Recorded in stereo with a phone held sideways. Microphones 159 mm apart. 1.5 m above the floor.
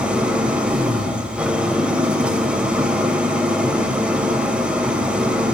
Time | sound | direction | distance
0.0 | an engine running | 5° right (ahead or behind) | 3 m